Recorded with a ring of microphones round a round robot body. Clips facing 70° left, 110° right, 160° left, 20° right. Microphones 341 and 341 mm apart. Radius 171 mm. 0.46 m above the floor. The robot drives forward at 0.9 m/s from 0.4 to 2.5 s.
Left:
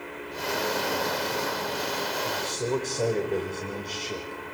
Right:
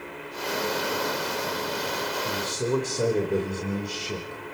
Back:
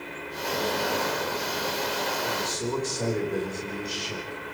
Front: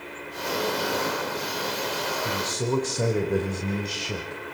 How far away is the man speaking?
About 2 m.